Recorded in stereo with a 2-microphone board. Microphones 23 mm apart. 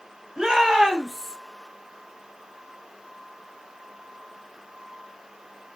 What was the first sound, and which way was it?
A shout, 20° right (ahead or behind).